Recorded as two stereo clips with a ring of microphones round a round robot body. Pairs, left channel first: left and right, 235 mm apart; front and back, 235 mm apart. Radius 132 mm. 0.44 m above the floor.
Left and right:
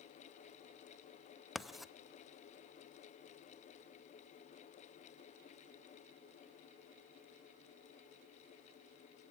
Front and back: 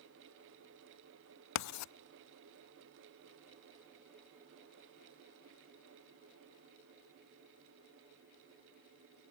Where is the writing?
Straight ahead, 0.5 m.